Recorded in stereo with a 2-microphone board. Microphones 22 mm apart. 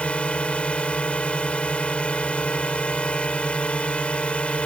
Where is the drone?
65° left (ahead or behind).